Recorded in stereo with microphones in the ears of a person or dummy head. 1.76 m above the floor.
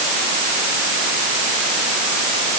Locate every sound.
Only background noise.